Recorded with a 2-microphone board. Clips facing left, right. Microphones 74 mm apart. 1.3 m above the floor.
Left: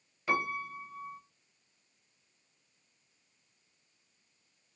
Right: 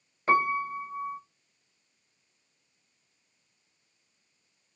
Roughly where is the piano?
Right.